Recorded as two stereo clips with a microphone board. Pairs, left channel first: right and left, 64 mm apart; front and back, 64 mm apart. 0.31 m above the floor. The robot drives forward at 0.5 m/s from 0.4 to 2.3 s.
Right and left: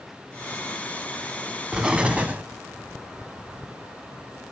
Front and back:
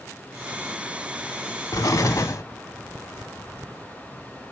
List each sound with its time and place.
1.7 s an explosion: 15° left, 0.9 m; by 2.4 s 25° left, 0.6 m